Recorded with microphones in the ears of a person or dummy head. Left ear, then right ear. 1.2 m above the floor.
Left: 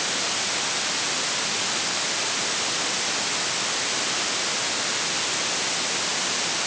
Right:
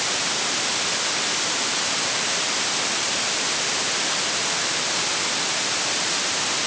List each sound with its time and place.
Only background noise.